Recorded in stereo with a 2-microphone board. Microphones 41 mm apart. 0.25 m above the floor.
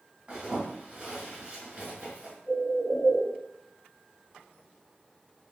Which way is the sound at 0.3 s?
25° right (ahead or behind).